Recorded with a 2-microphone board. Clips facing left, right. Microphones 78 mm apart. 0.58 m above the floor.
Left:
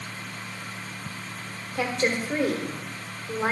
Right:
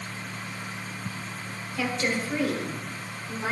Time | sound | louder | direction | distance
1.8 | a woman speaking | left 2 dB | 40° left (ahead or behind) | 1.3 m